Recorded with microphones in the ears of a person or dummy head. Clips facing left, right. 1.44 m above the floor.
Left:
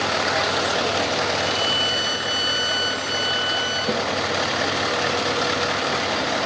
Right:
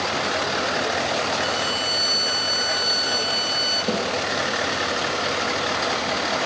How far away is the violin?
About 4 m.